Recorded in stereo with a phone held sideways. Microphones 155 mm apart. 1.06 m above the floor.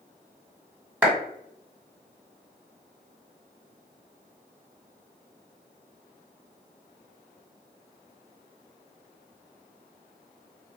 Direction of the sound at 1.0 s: 10° right (ahead or behind).